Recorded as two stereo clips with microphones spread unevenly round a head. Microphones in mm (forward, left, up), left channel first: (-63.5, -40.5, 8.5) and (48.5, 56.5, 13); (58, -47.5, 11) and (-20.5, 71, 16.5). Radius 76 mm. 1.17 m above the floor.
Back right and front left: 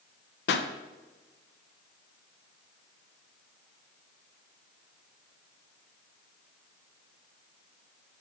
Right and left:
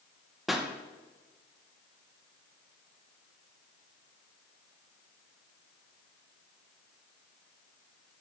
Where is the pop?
150° right, 0.5 m.